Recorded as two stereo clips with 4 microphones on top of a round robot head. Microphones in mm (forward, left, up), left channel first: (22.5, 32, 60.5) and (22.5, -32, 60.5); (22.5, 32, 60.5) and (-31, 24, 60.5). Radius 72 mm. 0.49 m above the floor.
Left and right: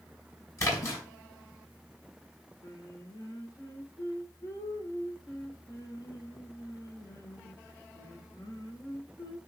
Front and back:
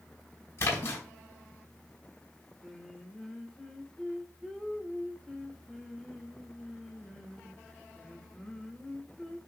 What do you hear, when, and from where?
0.6 s a splash: 50° left, 5.5 m
2.6 s singing: 90° left, 2.0 m